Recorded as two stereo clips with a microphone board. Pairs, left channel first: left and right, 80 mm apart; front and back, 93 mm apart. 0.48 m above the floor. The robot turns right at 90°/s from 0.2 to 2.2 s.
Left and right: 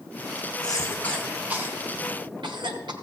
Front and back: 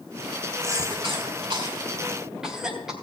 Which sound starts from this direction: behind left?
A cough, at 0.6 s.